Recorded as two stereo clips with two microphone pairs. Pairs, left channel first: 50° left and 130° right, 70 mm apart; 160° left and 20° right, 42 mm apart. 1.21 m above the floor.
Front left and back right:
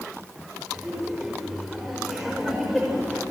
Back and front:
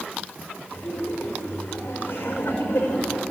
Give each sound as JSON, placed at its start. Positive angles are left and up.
{"t": 0.7, "sound": "laughter", "azimuth_deg": 145, "distance_m": 5.5}